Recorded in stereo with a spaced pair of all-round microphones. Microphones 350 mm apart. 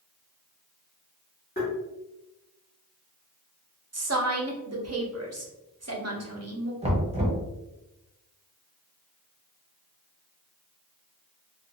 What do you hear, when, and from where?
1.6 s tapping: 30° left (ahead or behind), 1.2 m
3.9 s a woman speaking: 45° right (ahead or behind), 0.6 m
6.8 s knocking: 20° right (ahead or behind), 0.6 m